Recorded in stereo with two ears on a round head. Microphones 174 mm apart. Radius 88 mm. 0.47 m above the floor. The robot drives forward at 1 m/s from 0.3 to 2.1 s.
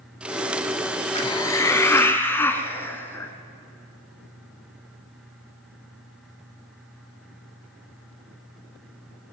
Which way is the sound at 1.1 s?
25° left (ahead or behind).